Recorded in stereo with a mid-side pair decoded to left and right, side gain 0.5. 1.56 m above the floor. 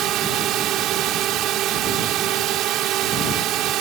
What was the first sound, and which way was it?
A drone, 70° right.